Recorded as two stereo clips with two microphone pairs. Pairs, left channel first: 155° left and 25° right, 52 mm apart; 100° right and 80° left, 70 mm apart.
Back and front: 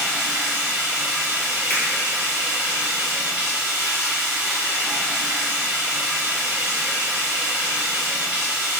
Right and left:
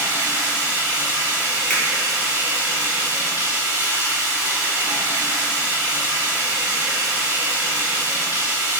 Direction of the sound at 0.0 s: 55° left.